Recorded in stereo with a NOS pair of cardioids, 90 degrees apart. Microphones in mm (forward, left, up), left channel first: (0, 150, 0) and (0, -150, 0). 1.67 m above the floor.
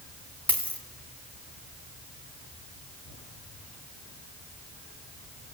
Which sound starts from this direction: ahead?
A dropped coin, at 0.5 s.